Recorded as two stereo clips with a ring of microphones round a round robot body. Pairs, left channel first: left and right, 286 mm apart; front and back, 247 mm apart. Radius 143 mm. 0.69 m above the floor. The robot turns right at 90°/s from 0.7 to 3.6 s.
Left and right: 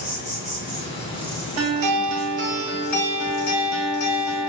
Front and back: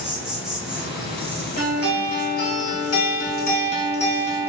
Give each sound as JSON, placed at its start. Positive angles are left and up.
{"t": 0.0, "sound": "an insect", "azimuth_deg": 95, "distance_m": 1.0}
{"t": 1.6, "sound": "a guitar", "azimuth_deg": -120, "distance_m": 0.8}